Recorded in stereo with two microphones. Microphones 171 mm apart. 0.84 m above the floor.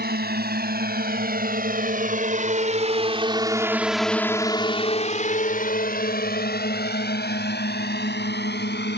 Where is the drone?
70° right (ahead or behind); by 9.0 s 80° left.